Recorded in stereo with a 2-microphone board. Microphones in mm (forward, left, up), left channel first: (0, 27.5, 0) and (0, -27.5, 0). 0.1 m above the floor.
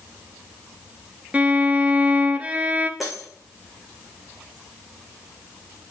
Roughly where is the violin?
Right.